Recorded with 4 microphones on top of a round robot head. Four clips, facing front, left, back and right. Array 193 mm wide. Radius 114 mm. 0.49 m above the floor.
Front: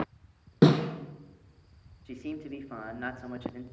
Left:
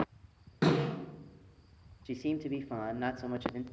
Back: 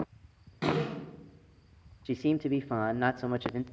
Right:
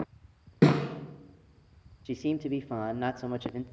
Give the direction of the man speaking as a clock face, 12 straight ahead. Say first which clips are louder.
Right 4 dB, back 10 dB; 5 o'clock.